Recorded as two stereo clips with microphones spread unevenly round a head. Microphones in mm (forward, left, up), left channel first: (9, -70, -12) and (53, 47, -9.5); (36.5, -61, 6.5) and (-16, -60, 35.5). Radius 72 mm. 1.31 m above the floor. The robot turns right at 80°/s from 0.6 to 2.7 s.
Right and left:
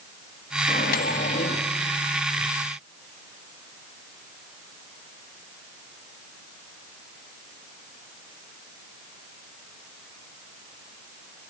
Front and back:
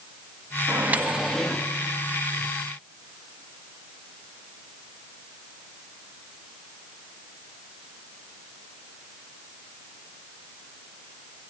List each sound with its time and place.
0.7 s a microwave: 150° right, 1.4 m; by 1.7 s 70° right, 1.4 m